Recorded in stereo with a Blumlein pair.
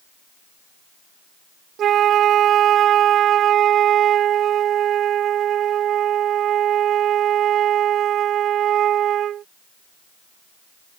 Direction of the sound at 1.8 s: 30° right.